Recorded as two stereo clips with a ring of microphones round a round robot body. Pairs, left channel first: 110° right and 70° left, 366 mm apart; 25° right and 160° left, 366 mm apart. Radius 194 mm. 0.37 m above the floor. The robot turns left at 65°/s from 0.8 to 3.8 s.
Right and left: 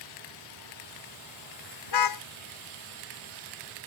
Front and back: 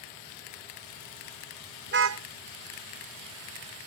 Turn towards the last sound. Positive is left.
turn(degrees=100)